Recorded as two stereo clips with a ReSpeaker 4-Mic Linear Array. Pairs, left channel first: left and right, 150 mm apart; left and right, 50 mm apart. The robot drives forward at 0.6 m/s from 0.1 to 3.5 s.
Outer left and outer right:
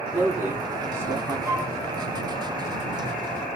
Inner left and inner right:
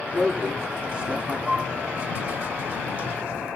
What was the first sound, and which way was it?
A man speaking, 15° right (ahead or behind).